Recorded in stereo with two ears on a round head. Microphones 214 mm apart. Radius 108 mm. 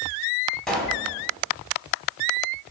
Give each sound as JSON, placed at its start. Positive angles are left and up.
{"t": 0.7, "sound": "a pop", "side_deg": 0, "distance_m": 1.2}